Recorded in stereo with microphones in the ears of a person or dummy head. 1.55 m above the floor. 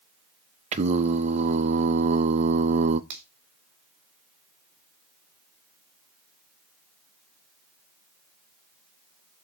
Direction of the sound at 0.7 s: 35° right (ahead or behind).